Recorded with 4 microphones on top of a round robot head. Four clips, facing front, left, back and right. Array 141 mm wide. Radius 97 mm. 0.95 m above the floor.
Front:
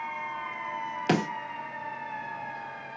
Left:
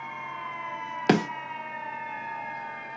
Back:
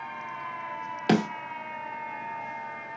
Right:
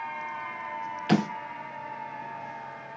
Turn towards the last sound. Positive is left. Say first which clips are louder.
# left 2 dB, back 3 dB
turn(degrees=100)